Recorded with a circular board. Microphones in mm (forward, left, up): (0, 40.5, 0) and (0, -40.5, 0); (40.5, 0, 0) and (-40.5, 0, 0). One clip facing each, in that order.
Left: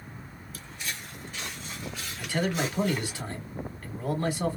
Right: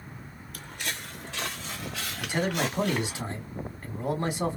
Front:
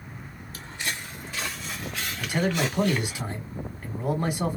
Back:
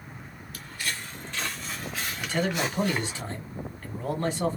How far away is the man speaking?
About 1.1 m.